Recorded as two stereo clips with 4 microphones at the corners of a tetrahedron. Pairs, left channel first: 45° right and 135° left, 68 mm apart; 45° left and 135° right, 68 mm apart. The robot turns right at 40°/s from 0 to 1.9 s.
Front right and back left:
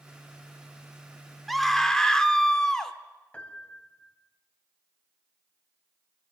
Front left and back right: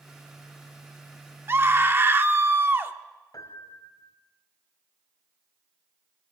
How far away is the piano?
About 1.9 m.